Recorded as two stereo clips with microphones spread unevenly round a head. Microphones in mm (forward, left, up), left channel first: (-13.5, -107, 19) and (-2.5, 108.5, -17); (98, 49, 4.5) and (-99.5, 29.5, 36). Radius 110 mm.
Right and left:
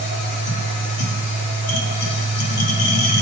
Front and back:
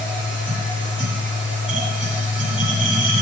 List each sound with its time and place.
0.0 s a machine running: 90° right, 1.7 m